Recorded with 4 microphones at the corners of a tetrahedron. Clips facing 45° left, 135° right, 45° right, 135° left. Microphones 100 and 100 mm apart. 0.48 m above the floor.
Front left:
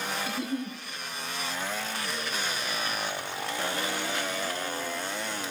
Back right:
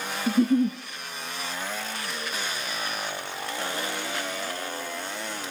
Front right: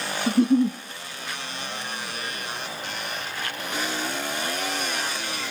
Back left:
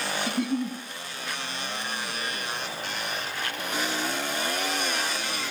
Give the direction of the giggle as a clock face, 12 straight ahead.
3 o'clock.